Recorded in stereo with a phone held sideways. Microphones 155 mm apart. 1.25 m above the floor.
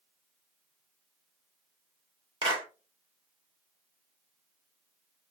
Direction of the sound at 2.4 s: 35° right (ahead or behind).